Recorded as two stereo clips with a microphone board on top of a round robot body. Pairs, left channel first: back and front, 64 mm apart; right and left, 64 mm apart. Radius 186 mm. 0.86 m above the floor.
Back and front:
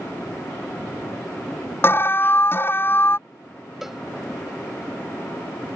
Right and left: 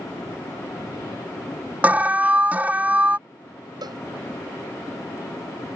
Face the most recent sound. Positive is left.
turn(degrees=85)